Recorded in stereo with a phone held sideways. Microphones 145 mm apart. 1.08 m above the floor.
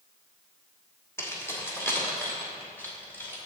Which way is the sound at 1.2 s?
20° left (ahead or behind).